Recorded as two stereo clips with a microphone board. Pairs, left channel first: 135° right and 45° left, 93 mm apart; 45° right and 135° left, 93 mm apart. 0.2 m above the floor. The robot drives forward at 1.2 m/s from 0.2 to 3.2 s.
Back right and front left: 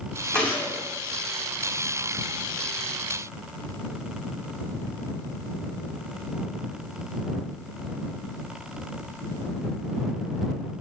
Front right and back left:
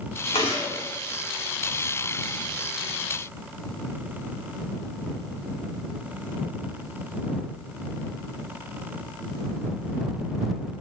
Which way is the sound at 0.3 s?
55° right.